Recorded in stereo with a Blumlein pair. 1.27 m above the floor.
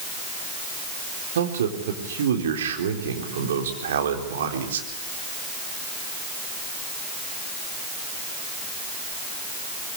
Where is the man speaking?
60° right, 4 m.